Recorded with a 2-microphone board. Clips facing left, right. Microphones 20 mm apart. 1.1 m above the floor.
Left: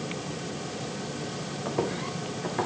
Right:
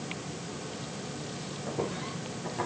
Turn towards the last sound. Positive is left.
turn(degrees=35)  # may be behind; listen again after turning